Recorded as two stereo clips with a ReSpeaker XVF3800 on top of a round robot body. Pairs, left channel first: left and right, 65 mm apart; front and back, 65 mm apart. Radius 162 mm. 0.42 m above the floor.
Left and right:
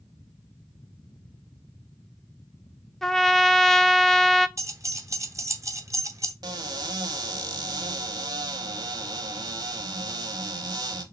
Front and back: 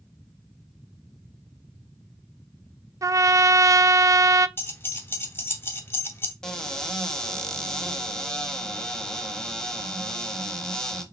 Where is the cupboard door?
80° right, 0.9 m.